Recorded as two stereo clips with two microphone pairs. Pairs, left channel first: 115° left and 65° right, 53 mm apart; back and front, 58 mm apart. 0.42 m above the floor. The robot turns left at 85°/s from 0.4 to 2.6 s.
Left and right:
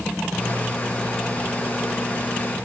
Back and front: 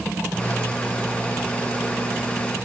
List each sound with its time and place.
Only background noise.